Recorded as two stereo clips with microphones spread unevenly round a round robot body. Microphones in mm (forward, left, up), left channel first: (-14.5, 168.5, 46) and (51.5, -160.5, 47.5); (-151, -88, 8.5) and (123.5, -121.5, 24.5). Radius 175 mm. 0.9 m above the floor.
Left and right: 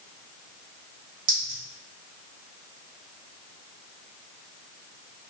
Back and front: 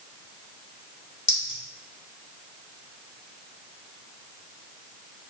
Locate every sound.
1.3 s a clink: 135° right, 1.3 m